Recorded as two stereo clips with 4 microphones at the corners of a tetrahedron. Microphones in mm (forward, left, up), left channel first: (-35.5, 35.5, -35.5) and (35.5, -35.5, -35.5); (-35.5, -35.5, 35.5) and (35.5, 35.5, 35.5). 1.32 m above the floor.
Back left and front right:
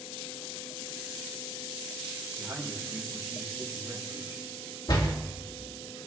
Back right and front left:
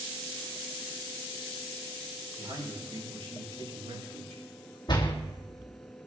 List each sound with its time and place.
2.4 s a man speaking: 30° left, 4.5 m
4.9 s a door slam: straight behind, 1.7 m